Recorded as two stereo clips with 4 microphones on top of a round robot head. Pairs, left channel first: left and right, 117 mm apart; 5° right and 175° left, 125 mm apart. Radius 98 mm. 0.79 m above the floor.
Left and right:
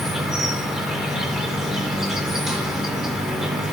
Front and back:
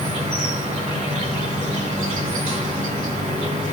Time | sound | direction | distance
0.0 | an insect | 175° right | 2 m